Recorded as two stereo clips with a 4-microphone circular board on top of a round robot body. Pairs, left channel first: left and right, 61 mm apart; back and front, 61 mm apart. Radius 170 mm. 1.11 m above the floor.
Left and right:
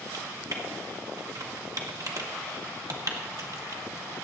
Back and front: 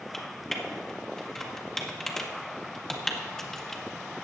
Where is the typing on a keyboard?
100° right, 1.6 m.